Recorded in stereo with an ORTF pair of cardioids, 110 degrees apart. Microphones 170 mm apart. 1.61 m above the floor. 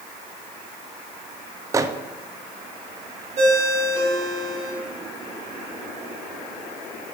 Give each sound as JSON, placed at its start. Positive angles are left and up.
{"t": 1.7, "sound": "a microwave", "azimuth_deg": -20, "distance_m": 0.6}
{"t": 3.4, "sound": "a ringtone", "azimuth_deg": -45, "distance_m": 2.5}